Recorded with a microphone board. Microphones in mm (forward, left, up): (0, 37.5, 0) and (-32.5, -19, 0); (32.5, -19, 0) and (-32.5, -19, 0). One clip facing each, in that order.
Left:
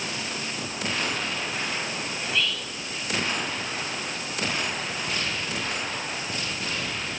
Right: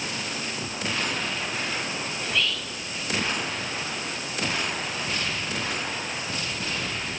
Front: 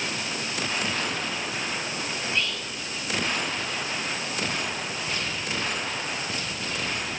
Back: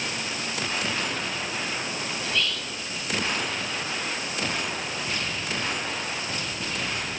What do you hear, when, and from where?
2.2 s whispering: 25° right, 1.5 m